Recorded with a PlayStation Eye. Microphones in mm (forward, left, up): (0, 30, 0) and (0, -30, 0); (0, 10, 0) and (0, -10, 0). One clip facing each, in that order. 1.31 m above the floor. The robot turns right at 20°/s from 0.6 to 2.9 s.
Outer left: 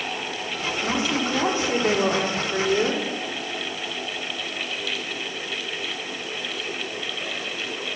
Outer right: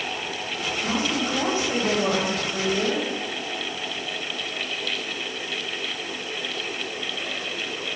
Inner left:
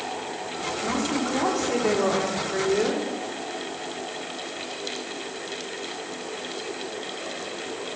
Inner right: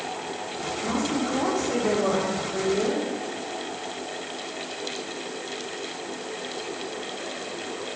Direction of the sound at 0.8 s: 25° left.